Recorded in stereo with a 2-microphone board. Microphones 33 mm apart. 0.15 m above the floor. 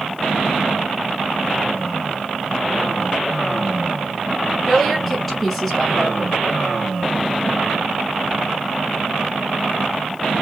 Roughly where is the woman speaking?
Centre.